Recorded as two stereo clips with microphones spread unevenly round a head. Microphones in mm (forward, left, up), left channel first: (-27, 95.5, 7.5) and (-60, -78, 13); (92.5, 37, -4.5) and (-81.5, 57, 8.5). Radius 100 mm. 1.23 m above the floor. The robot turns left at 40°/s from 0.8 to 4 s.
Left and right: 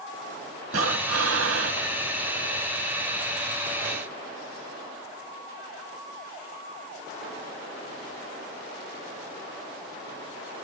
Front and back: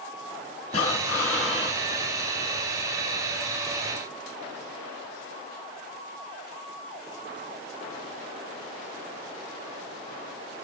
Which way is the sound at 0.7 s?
70° right.